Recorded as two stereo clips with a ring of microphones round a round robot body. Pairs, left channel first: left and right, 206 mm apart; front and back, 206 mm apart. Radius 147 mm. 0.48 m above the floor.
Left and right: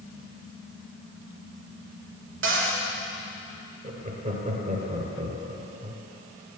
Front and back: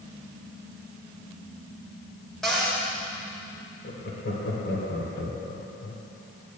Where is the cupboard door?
90° right, 1.3 m.